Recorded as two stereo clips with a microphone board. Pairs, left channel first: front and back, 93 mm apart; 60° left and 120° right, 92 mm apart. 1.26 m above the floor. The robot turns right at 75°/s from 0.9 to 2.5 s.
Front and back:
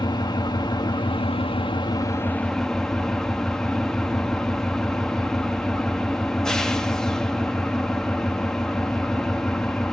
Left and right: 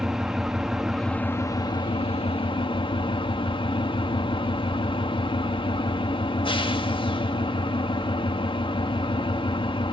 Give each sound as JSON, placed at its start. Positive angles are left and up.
{"t": 0.0, "sound": "an engine running", "azimuth_deg": -35, "distance_m": 1.8}